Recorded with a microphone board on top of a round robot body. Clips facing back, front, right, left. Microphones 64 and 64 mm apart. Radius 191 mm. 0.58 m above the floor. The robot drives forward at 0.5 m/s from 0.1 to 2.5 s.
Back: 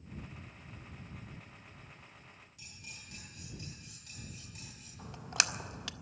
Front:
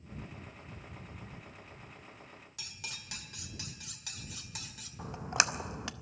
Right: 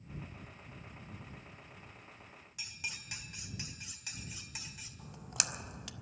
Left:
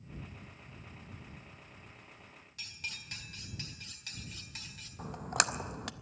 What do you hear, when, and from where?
2.6 s cutlery clinking: 15° right, 1.5 m
5.0 s a splash: 65° left, 0.8 m